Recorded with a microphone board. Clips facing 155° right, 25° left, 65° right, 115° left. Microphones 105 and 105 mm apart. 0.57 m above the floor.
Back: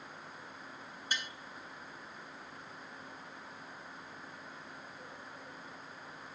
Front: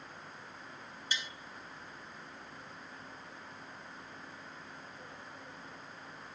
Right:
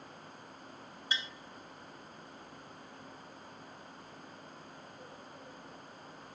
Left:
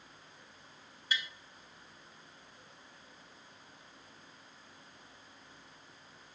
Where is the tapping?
125° right, 0.7 m.